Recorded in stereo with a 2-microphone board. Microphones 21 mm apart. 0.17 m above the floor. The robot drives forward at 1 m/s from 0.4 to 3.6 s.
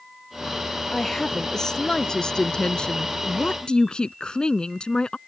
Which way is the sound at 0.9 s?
20° left (ahead or behind).